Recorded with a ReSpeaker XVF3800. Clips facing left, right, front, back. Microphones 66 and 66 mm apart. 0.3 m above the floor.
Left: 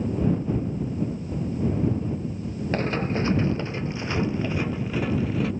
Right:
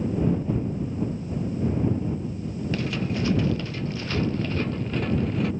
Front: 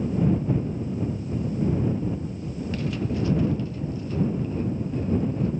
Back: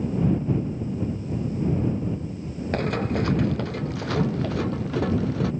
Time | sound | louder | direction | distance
2.7 | running footsteps | left 4 dB, back 4 dB | 140° left | ?